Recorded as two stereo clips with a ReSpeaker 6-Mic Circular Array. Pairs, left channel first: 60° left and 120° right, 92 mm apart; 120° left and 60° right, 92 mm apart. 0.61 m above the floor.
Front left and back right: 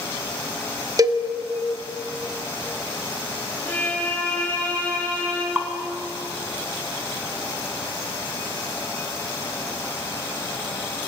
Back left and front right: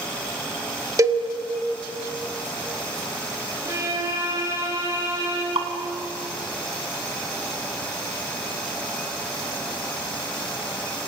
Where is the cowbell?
100° right, 1.7 m.